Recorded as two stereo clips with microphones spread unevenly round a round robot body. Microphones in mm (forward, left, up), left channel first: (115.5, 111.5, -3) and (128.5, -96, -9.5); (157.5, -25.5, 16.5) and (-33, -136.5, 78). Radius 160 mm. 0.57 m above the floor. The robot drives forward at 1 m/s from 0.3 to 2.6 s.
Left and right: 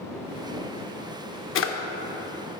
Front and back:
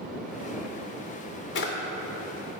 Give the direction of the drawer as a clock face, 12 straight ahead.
10 o'clock.